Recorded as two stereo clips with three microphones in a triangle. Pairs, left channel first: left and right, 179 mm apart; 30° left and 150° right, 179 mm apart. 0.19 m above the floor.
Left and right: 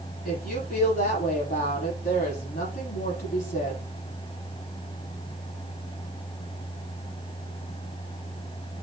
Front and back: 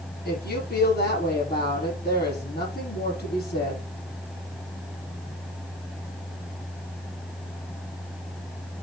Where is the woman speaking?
55° left, 6 m.